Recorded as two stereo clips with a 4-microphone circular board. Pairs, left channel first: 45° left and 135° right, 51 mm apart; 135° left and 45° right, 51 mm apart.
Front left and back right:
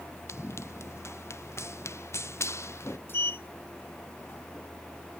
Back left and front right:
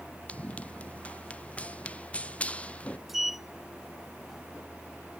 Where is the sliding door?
40° left.